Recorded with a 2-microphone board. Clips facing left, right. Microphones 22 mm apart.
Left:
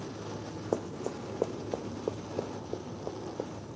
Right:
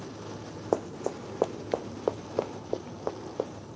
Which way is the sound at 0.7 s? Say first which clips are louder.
Right 4 dB; 35° right (ahead or behind).